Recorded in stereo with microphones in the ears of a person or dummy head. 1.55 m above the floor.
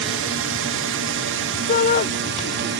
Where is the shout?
40° left (ahead or behind).